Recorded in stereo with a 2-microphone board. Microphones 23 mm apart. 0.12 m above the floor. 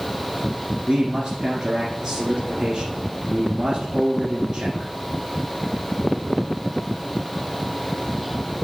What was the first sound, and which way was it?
A man speaking, 20° right (ahead or behind).